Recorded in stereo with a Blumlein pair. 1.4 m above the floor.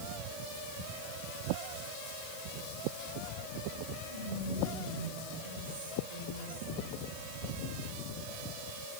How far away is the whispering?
About 5.5 m.